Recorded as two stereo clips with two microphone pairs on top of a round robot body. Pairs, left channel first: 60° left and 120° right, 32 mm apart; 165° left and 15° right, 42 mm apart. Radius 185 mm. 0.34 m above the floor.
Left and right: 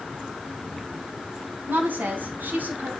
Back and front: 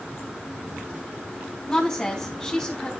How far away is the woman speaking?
About 4 m.